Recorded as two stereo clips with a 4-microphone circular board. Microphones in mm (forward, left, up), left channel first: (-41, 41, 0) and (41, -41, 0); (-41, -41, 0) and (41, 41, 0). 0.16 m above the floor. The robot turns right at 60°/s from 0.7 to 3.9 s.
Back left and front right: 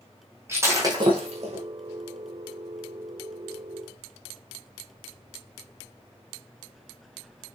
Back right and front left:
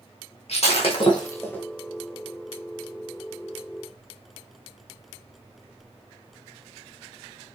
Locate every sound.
0.5 s breaking glass: 110° right, 5.5 m; by 1.6 s 55° right, 5.5 m